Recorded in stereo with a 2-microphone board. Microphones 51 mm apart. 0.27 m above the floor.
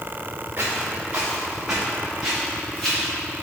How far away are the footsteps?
About 2 m.